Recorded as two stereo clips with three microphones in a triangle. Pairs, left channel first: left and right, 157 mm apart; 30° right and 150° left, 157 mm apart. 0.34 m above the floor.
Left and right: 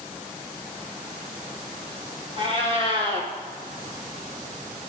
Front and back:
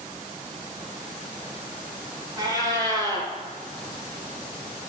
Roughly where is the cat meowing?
Behind right.